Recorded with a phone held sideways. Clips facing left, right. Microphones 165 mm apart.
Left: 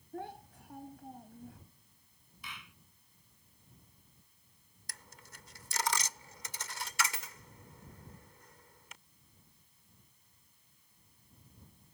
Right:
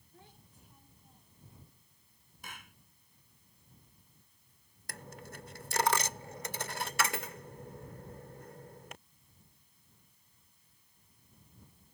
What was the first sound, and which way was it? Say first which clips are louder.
A child speaking: left 17 dB; 75° left (ahead or behind).